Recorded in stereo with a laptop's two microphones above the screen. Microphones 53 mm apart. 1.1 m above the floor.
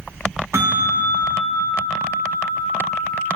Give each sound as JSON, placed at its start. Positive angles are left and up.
{"t": 0.5, "sound": "a bell", "side_deg": -65, "distance_m": 5.0}